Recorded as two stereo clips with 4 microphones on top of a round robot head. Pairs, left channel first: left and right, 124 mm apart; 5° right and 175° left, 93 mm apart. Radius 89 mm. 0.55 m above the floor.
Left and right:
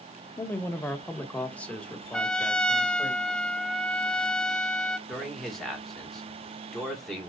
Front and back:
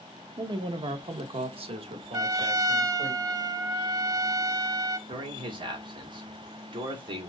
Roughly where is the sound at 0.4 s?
Behind left.